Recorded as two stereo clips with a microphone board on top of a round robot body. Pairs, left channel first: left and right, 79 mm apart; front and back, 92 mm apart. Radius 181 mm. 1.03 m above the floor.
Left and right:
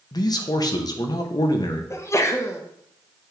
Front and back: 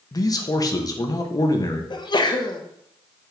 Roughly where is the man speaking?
Ahead left.